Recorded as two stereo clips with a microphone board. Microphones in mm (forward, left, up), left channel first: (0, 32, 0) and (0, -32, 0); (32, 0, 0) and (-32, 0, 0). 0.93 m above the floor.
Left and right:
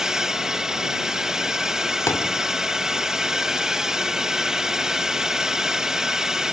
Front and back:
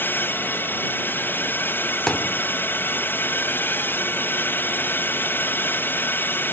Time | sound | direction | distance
0.0 | a drone | 15° right | ?
2.1 | a thud | 75° left | ?